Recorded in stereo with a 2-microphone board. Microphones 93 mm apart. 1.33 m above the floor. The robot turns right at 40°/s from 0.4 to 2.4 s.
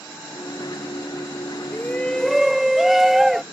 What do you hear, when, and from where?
1.7 s a shout: 20° left (ahead or behind); by 3.4 s 5° right (ahead or behind)